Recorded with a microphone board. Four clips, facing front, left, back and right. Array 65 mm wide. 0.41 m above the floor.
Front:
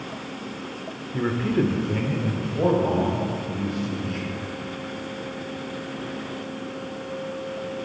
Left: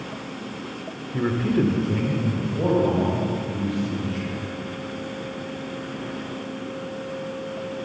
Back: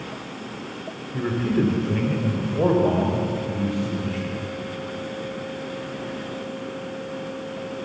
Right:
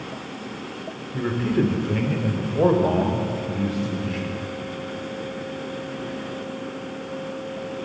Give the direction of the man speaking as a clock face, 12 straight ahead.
11 o'clock.